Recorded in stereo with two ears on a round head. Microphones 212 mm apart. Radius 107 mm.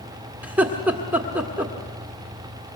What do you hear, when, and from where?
0.4 s laughter: 5° right (ahead or behind), 1.4 m